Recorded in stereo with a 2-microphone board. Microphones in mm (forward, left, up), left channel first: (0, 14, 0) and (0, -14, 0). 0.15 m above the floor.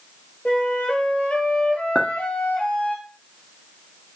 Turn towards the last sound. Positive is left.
turn(degrees=10)  # may be behind; listen again after turning